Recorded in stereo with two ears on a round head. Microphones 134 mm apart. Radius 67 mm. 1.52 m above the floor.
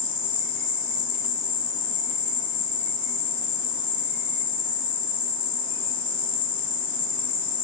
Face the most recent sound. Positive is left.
turn(degrees=30)  # may be behind; listen again after turning